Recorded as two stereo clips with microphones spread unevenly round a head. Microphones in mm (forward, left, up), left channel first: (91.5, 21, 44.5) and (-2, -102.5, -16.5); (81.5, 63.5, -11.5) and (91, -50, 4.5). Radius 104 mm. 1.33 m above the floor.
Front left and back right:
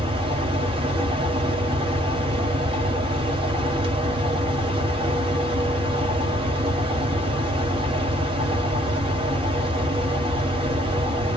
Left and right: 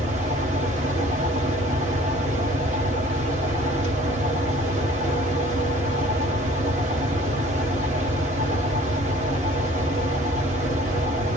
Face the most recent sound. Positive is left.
turn(degrees=-85)